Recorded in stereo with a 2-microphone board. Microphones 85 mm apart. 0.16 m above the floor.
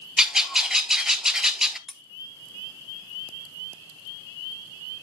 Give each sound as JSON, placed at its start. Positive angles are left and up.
{"t": 0.2, "sound": "a bird", "side_deg": -5, "distance_m": 0.7}
{"t": 1.9, "sound": "cutlery clinking", "side_deg": 5, "distance_m": 0.7}